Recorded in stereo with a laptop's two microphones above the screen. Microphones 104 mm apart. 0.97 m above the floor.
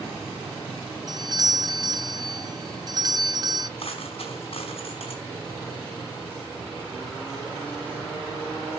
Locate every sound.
1.1 s a doorbell: 40° right (ahead or behind), 0.7 m
3.8 s a dropped coin: 65° left (ahead or behind), 4.5 m